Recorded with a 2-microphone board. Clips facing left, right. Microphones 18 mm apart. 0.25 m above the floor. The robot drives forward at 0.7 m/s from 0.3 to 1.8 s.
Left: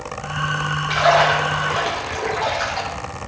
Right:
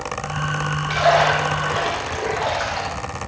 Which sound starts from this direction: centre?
A splash, at 0.9 s.